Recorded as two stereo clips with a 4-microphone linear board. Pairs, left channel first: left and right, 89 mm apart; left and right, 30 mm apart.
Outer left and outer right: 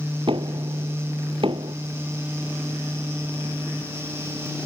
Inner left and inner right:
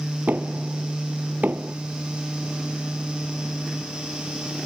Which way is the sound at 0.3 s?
70° right (ahead or behind).